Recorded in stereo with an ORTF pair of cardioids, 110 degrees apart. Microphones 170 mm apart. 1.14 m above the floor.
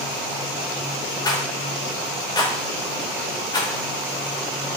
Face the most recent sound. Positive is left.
turn(degrees=25)